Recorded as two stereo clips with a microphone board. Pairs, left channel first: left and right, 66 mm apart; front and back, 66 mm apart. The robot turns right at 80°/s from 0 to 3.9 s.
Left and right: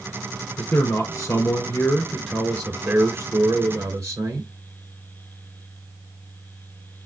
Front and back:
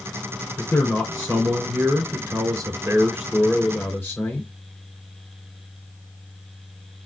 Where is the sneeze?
No sneeze in this recording.